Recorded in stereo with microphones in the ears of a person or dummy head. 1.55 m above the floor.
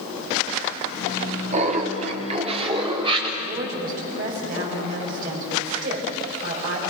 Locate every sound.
1.5 s laughter: 40° right (ahead or behind), 3 m; by 3.3 s 30° right (ahead or behind), 4.5 m
3.4 s a woman speaking: 50° right (ahead or behind), 6 m